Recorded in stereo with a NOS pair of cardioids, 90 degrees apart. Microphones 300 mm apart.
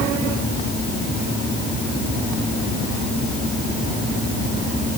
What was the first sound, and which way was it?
Only background noise.